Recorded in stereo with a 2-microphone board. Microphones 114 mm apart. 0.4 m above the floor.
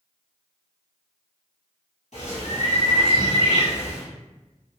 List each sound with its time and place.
2.1 s a bird: 80° left, 1.6 m